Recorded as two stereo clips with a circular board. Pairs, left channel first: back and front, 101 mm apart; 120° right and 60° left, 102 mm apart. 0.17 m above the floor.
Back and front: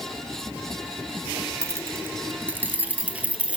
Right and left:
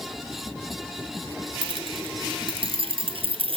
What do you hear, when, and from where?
1.6 s keys jangling: 55° left, 1.3 m; by 3.6 s 80° left, 2.5 m